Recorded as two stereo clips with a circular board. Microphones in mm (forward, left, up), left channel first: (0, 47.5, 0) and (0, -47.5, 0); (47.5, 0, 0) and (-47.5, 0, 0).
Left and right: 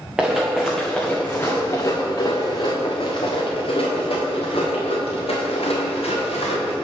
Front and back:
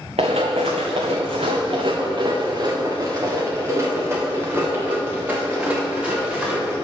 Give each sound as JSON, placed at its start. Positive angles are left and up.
{"t": 0.2, "sound": "running footsteps", "azimuth_deg": -170, "distance_m": 1.5}